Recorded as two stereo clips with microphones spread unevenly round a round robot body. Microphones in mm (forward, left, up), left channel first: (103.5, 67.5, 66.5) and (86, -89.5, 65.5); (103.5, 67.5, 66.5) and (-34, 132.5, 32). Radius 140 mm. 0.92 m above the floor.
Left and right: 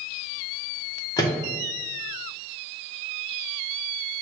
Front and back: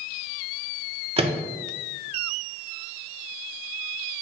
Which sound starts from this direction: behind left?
A microwave, at 1.2 s.